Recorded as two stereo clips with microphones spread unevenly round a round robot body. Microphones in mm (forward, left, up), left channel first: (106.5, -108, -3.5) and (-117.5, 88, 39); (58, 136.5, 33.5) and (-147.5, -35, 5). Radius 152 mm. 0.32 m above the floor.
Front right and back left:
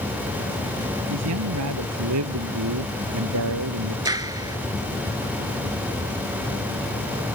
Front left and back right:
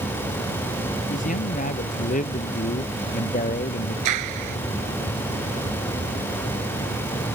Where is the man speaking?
100° left.